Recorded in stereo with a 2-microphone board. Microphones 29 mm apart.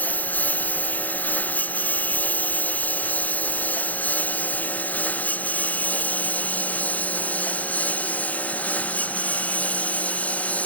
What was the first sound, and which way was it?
A lawn mower, 80° left.